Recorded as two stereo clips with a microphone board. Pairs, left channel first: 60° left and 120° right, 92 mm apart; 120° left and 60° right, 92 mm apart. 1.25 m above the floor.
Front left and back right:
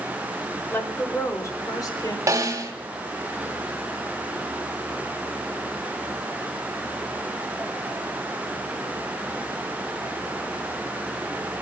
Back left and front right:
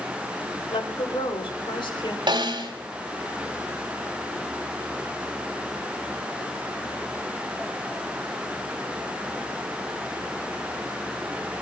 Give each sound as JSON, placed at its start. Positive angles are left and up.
{"t": 0.7, "sound": "a woman speaking", "azimuth_deg": 130, "distance_m": 3.0}
{"t": 2.3, "sound": "a snare drum", "azimuth_deg": -70, "distance_m": 2.0}